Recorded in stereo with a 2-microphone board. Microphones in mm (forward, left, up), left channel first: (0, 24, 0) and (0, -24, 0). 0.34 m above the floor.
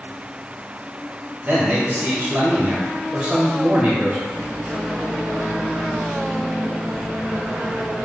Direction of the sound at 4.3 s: 25° right (ahead or behind).